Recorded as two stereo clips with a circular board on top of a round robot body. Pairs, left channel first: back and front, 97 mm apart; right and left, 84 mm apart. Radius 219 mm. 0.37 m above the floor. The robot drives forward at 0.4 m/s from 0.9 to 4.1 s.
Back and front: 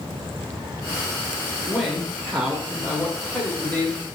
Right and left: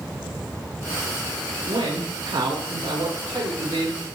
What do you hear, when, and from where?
1.7 s a man speaking: 75° left, 1.7 m; by 4.0 s 110° left, 1.8 m